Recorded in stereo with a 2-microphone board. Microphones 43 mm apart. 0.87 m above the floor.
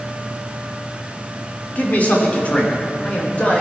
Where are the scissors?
I don't hear scissors.